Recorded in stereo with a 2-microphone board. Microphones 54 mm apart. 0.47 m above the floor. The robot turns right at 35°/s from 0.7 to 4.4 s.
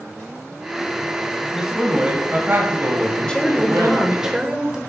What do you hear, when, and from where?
1.5 s a man speaking: 175° right, 2 m; by 4.3 s 80° right, 2 m
3.3 s a woman speaking: 160° left, 1.5 m; by 4.8 s 160° right, 1.5 m